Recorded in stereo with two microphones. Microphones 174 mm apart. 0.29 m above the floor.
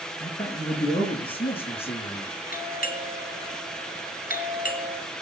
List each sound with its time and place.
0.2 s a man speaking: 20° left (ahead or behind), 4.5 m; by 2.3 s 35° left (ahead or behind), 6 m
2.5 s a doorbell: 55° left (ahead or behind), 2.5 m